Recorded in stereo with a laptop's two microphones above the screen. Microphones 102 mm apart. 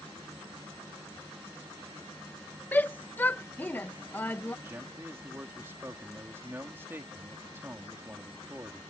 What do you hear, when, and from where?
2.7 s a shout: 15° left (ahead or behind)
4.7 s a man speaking: 20° right (ahead or behind)